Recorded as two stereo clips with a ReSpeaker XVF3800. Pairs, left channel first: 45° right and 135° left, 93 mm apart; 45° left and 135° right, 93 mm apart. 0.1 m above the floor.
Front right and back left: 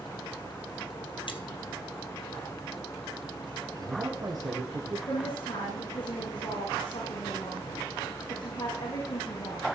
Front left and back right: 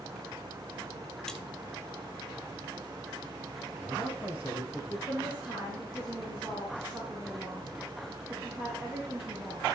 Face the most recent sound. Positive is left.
turn(degrees=-55)